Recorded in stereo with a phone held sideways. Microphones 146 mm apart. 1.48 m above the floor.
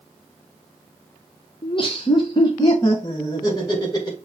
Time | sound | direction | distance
1.6 | laughter | 40° left (ahead or behind) | 0.8 m